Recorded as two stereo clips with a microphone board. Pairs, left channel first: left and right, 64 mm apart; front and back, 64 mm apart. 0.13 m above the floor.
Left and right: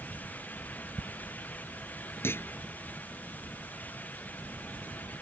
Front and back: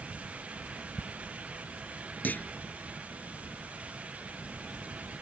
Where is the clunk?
55° left.